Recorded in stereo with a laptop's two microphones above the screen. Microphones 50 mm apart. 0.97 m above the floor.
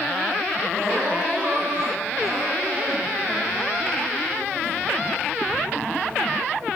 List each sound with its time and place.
0.7 s crying: 50° right (ahead or behind), 6.5 m